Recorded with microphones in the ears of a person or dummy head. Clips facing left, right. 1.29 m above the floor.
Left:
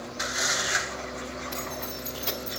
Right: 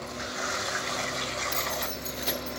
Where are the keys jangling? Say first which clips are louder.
Right 1 dB; 25° right (ahead or behind), 2 m; by 2.6 s 5° right (ahead or behind), 2 m.